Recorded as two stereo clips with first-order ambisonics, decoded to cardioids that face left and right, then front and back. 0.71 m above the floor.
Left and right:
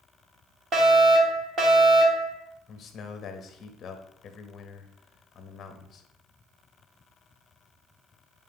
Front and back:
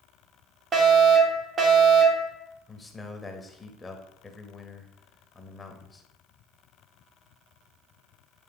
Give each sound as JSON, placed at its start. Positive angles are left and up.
{"t": 0.7, "sound": "a fire alarm", "azimuth_deg": -130, "distance_m": 1.8}
{"t": 2.7, "sound": "a man speaking", "azimuth_deg": 60, "distance_m": 0.9}